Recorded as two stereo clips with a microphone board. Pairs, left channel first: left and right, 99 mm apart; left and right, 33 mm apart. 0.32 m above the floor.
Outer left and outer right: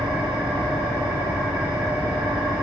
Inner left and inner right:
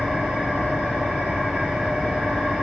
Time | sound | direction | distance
0.0 | an engine running | 55° right (ahead or behind) | 6.5 m